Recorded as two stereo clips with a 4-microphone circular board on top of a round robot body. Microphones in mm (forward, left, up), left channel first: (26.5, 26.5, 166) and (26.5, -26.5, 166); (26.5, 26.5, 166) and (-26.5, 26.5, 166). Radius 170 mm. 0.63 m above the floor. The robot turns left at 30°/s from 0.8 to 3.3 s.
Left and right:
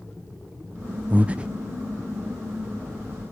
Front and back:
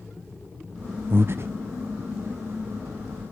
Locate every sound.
1.1 s breathing: 145° right, 0.5 m; by 1.5 s 160° right, 0.5 m